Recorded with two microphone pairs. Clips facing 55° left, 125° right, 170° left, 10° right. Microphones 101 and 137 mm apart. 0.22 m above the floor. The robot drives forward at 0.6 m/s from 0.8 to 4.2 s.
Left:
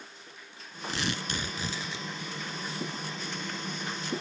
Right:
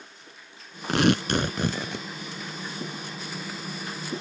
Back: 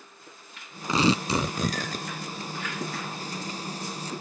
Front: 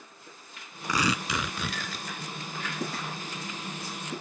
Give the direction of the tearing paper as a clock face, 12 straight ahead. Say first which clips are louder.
Right 12 dB, back 6 dB; 4 o'clock.